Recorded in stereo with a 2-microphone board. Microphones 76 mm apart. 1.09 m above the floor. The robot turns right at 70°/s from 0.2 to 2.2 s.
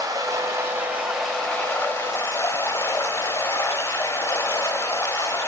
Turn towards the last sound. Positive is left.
turn(degrees=70)